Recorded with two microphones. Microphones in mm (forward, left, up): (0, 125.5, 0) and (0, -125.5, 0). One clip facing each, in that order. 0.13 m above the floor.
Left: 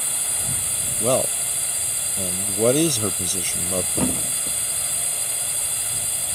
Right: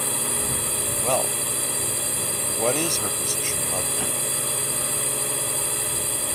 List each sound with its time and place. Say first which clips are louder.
0.0 s a drone: right 9 dB; 65° right (ahead or behind)
1.0 s a man speaking: left 5 dB; 40° left (ahead or behind)
4.0 s a thud: left 7 dB; 60° left (ahead or behind)